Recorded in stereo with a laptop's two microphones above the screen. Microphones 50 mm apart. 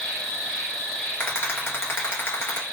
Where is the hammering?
I don't hear hammering.